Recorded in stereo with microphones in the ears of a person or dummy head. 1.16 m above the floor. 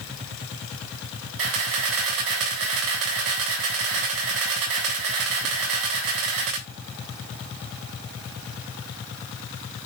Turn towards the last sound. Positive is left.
turn(degrees=-80)